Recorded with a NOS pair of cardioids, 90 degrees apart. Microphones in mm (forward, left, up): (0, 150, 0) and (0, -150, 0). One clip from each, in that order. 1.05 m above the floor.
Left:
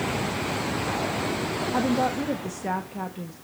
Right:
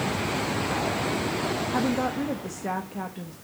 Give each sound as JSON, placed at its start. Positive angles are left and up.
{"t": 1.7, "sound": "a woman speaking", "azimuth_deg": 10, "distance_m": 1.1}